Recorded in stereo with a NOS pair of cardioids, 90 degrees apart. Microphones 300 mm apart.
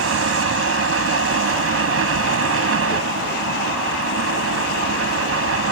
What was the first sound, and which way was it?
A fan, 50° right.